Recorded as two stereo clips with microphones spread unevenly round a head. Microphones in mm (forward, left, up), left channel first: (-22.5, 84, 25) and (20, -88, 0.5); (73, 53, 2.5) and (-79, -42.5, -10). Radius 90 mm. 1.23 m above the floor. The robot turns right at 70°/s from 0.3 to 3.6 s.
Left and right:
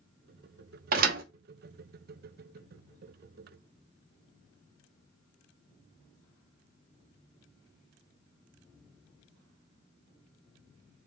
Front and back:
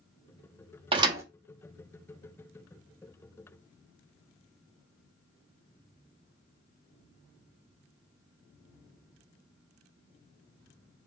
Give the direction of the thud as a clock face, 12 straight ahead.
3 o'clock.